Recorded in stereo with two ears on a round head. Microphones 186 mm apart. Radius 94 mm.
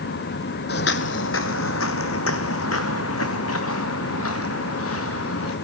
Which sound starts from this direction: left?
Footsteps, at 0.7 s.